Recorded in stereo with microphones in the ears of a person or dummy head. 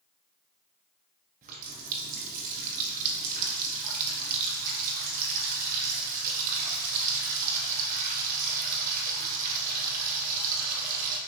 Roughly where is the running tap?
Right.